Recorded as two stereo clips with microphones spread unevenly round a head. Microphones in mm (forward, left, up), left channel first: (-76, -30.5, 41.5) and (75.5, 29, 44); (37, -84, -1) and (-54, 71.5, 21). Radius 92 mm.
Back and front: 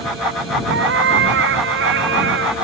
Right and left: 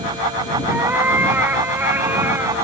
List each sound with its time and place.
0.7 s a cat meowing: 40° left